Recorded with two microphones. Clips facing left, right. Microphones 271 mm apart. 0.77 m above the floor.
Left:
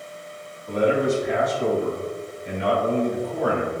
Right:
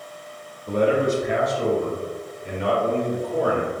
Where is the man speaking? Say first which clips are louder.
Right 1 dB; 50° right (ahead or behind), 1.5 m; by 3.7 s 40° right (ahead or behind), 2.5 m.